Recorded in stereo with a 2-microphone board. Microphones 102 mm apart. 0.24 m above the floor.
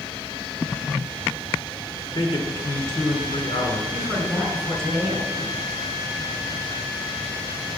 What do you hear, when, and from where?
2.1 s a man speaking: 60° left (ahead or behind), 2 m
3.9 s a woman speaking: centre (ahead or behind), 3 m